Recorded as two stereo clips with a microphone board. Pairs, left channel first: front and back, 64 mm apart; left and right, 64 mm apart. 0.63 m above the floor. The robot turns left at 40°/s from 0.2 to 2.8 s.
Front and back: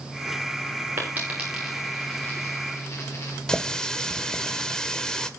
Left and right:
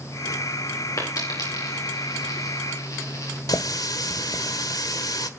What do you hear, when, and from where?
1.0 s a dropped coin: 125° left, 9 m; by 3.4 s 50° left, 9 m
3.5 s a running tap: 80° left, 1.6 m